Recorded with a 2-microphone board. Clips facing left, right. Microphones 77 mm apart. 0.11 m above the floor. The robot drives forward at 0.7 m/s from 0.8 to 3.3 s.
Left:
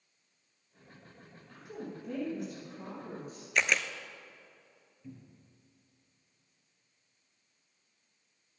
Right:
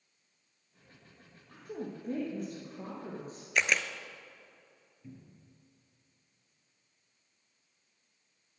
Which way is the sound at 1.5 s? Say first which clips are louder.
Right 3 dB; 45° right (ahead or behind).